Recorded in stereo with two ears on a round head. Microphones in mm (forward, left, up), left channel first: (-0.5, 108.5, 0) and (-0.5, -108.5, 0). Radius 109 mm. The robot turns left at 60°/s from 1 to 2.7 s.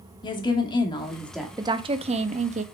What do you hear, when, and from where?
0.2 s a woman speaking: 20° left (ahead or behind), 1.5 m; by 1.5 s 5° right (ahead or behind), 1.5 m
1.6 s a woman speaking: 15° right (ahead or behind), 0.6 m; by 2.6 s 30° right (ahead or behind), 0.6 m